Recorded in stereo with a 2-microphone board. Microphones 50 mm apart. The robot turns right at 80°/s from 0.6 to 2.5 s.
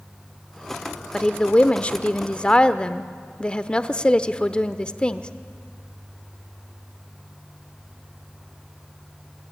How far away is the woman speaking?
About 0.8 m.